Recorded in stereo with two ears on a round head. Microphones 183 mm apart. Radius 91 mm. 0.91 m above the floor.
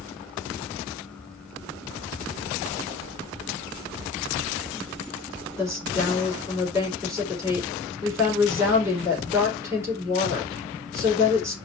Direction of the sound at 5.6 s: 15° right (ahead or behind).